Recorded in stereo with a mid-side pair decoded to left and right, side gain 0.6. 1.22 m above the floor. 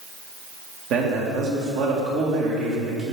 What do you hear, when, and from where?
0.9 s a man speaking: 65° right, 1.9 m